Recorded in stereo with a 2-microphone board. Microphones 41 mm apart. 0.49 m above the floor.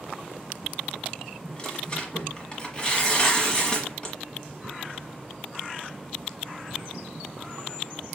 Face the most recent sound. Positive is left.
turn(degrees=20)  # may be behind; listen again after turning